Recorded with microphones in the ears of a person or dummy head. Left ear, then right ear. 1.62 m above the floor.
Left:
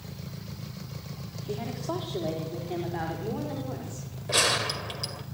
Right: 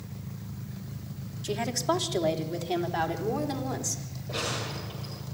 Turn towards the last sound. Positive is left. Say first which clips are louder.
# left 8 dB
turn(degrees=50)  # may be behind; listen again after turning